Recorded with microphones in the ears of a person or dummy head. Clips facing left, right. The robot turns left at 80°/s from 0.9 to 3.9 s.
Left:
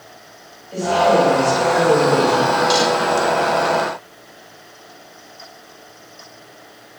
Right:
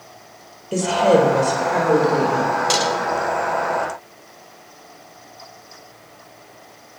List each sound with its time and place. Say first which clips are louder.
0.7 s a woman speaking: even; 115° right, 4.5 m; by 2.5 s 120° left, 4.5 m
2.7 s a snare drum: left 4 dB; 40° right (ahead or behind), 4 m; by 2.9 s 20° right (ahead or behind), 4 m